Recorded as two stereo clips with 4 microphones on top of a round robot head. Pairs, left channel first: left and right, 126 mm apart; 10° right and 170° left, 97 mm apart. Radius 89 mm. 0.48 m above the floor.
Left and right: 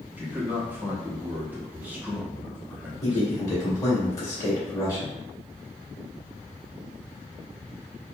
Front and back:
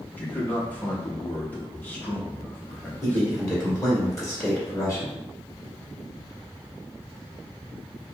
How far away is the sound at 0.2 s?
About 0.8 m.